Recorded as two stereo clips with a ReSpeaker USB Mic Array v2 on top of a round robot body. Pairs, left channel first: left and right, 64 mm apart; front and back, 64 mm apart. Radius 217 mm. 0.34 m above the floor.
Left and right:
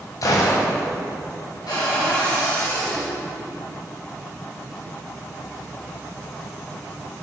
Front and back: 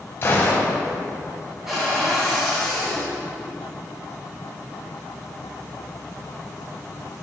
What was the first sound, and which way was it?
A gunshot, 55° left.